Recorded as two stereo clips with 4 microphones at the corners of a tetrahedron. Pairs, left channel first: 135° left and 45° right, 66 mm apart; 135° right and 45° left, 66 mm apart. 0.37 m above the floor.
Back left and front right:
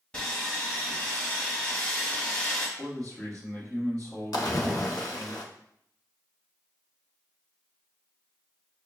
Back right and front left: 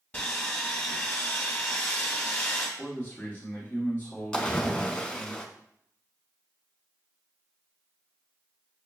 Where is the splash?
150° left, 0.7 m.